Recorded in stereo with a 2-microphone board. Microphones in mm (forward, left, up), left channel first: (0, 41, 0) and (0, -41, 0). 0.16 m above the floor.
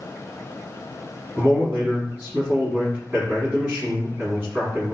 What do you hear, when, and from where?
1.4 s a man speaking: 25° right (ahead or behind), 1.6 m